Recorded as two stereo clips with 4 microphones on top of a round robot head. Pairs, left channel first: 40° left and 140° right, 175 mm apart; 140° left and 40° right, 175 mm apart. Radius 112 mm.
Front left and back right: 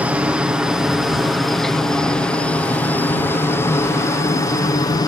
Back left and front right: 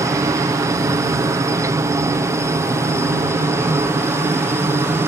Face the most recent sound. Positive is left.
turn(degrees=15)